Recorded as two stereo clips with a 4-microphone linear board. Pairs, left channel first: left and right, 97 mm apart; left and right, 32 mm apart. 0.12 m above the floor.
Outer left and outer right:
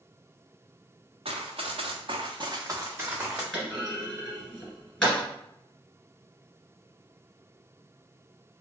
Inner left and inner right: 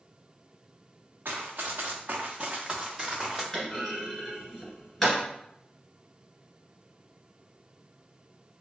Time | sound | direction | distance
1.2 | running footsteps | 80° right | 0.7 m
3.5 | a clunk | 5° left (ahead or behind) | 1.8 m